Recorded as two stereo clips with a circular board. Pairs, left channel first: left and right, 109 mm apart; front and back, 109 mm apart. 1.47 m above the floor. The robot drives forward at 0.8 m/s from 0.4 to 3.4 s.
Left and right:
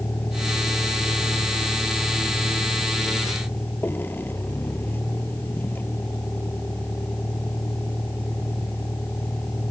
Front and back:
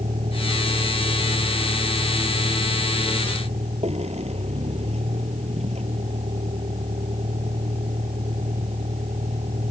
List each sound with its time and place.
0.0 s a vehicle: 160° left